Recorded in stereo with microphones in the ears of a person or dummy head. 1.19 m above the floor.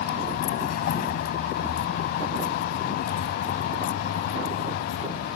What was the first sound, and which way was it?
A vehicle, 50° left (ahead or behind).